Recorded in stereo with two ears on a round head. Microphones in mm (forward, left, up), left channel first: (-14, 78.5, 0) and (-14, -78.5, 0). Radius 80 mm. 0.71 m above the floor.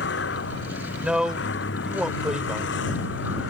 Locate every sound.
0.0 s a vehicle: 65° left (ahead or behind)
1.0 s a man speaking: 5° right (ahead or behind)